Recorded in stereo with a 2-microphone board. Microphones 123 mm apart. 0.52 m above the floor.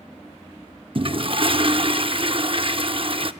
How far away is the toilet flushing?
About 0.6 m.